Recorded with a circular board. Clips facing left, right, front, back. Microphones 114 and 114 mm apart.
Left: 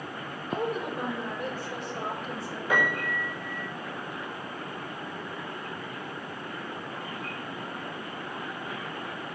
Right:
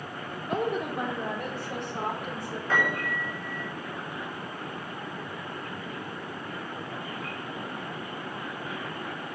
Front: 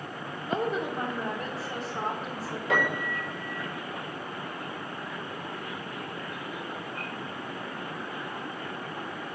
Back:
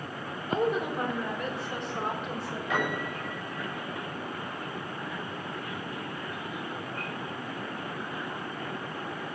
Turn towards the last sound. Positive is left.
turn(degrees=15)